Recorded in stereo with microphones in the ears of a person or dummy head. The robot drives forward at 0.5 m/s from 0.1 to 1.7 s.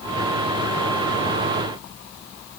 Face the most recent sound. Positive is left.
No sound to turn to.